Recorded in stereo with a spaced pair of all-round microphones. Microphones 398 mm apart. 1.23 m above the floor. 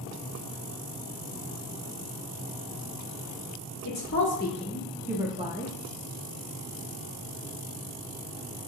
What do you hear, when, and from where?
3.9 s a woman speaking: 50° left (ahead or behind), 0.8 m; by 5.7 s 25° right (ahead or behind), 1.1 m